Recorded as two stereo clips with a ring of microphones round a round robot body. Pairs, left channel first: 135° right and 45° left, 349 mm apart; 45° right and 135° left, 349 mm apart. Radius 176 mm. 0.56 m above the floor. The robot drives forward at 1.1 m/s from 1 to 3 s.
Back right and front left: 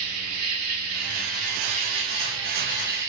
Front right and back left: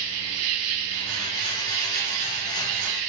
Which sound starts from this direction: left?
An insect, at 0.0 s.